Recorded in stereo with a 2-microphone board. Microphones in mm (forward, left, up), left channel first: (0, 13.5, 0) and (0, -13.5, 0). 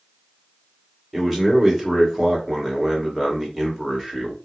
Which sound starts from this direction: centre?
A man speaking, at 1.1 s.